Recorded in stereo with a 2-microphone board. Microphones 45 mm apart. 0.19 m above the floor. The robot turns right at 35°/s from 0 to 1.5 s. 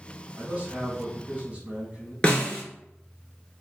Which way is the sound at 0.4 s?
30° right (ahead or behind).